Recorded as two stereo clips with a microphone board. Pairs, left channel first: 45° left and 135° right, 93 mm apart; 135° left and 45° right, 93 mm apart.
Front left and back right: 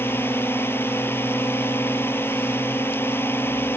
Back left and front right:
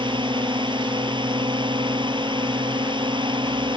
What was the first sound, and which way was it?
A drone, 20° right.